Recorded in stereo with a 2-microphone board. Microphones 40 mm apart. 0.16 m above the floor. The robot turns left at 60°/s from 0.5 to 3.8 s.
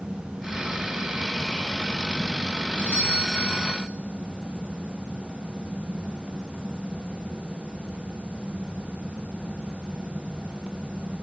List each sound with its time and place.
2.8 s a doorbell: 55° left, 4.5 m; by 3.8 s 5° right, 4.5 m